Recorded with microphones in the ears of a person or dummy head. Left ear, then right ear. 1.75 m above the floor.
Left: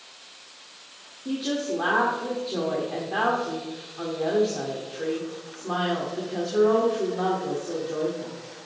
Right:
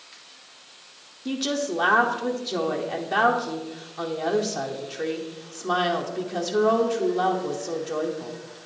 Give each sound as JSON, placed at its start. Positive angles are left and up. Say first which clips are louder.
{"t": 1.2, "sound": "a woman speaking", "louder": "right 1 dB", "side_deg": -85, "distance_m": 1.0}